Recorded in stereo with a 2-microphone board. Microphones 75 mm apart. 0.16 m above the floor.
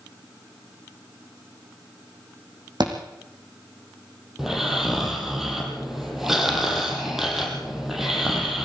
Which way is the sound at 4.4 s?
5° right (ahead or behind).